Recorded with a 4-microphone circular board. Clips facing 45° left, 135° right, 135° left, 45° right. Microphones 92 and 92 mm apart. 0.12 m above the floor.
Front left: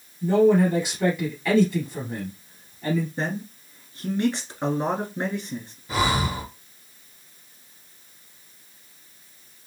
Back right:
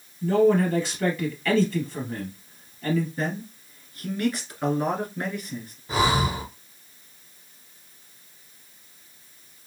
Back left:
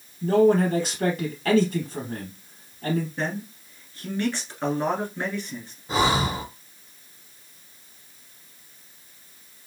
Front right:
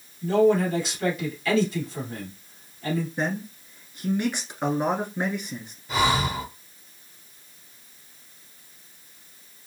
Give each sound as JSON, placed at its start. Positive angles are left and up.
{"t": 0.2, "sound": "a man speaking", "azimuth_deg": 115, "distance_m": 2.5}
{"t": 3.2, "sound": "a man speaking", "azimuth_deg": 15, "distance_m": 1.2}
{"t": 5.9, "sound": "breathing", "azimuth_deg": 165, "distance_m": 1.9}